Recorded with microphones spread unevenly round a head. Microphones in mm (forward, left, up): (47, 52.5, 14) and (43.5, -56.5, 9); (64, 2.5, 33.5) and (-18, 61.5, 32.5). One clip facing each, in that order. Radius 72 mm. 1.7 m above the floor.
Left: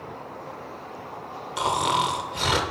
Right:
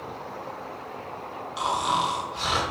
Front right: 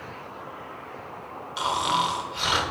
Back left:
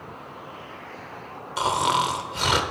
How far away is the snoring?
About 0.7 m.